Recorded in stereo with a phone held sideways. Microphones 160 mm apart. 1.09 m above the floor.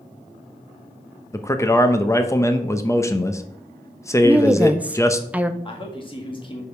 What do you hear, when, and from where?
1.3 s a man speaking: 20° left (ahead or behind), 0.8 m
4.2 s a woman speaking: 10° right (ahead or behind), 0.6 m
5.7 s a man speaking: 30° left (ahead or behind), 1.8 m